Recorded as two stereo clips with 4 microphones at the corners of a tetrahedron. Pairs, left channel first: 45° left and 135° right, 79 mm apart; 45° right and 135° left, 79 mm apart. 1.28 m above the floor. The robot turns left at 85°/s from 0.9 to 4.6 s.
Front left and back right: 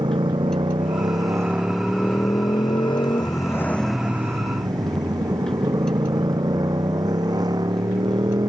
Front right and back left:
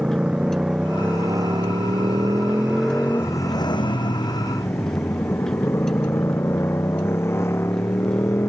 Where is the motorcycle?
150° right; by 8.5 s 100° right.